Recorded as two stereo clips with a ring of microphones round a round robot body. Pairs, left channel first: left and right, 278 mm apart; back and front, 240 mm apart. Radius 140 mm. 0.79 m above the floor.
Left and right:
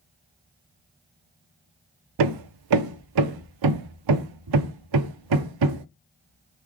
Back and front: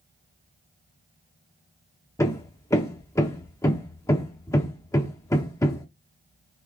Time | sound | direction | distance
2.2 | hammering | 100° right | 0.6 m